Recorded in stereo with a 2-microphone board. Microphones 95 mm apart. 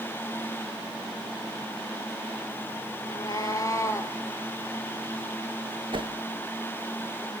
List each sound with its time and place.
3.0 s a cat meowing: 50° left (ahead or behind), 0.9 m; by 4.2 s 30° left (ahead or behind), 1.5 m
5.9 s a whoosh: 60° right (ahead or behind), 0.6 m